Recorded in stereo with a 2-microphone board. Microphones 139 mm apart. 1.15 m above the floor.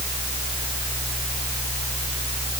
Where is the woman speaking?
I don't hear a woman speaking.